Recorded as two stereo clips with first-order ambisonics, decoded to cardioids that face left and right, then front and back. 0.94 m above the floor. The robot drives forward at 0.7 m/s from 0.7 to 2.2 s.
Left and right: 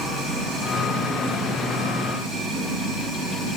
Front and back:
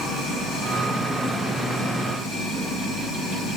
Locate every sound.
0.0 s running water: 60° right, 5 m; by 3.6 s 75° right, 4.5 m